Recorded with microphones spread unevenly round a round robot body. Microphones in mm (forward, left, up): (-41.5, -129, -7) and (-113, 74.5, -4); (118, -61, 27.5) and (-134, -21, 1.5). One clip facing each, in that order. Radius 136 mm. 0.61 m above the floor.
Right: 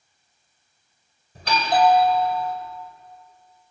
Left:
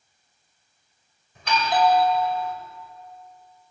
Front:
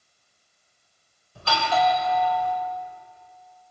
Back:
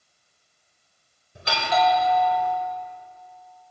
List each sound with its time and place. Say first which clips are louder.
1.4 s a doorbell: right 2 dB, even; 120° right, 4.5 m